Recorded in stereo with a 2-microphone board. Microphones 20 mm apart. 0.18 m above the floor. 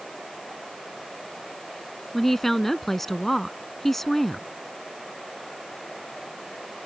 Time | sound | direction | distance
2.1 | a woman speaking | 15° left (ahead or behind) | ?